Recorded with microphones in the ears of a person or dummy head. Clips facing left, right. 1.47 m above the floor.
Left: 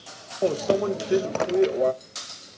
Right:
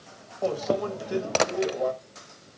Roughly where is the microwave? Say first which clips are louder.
Left 4 dB; left.